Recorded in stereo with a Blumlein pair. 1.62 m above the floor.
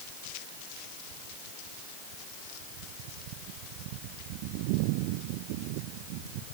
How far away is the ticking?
I don't hear ticking.